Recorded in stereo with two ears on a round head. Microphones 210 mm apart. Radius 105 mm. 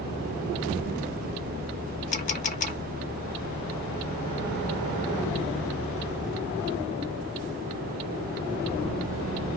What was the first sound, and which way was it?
A camera shutter, 35° left (ahead or behind).